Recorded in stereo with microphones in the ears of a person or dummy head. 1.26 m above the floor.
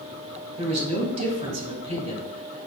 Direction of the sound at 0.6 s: 35° right (ahead or behind).